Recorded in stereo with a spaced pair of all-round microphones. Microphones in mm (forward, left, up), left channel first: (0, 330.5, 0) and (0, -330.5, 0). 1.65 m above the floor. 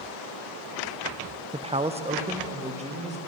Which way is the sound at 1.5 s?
10° right (ahead or behind).